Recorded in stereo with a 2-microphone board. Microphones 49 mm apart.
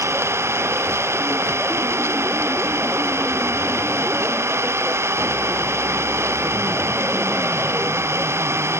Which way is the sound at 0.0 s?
60° right (ahead or behind).